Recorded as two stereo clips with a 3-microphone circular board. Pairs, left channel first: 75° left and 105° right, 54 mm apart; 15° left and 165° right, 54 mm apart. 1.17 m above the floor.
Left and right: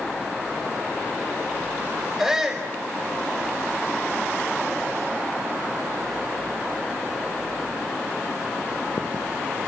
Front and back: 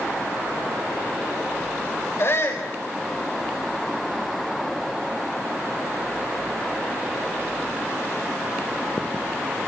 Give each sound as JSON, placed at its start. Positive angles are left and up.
{"t": 2.2, "sound": "a shout", "azimuth_deg": -20, "distance_m": 6.5}